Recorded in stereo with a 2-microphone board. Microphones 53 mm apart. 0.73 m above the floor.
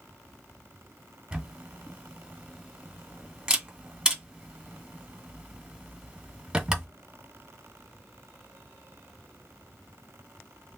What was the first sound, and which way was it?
A camera shutter, 15° right (ahead or behind).